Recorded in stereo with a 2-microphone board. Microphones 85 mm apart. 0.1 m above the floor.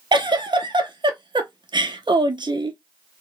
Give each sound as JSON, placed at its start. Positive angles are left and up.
{"t": 0.1, "sound": "a giggle", "side_deg": -65, "distance_m": 0.5}